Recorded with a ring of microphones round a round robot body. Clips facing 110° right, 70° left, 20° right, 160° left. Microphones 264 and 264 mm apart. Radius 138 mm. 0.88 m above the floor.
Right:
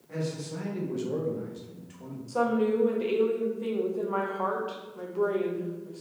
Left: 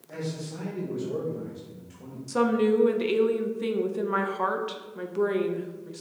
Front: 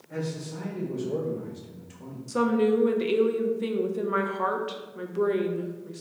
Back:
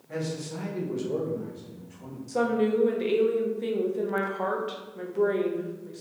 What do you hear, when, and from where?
0.1 s a man speaking: straight behind, 1.9 m; by 2.2 s 50° right, 1.8 m
2.3 s a woman speaking: 40° left, 0.5 m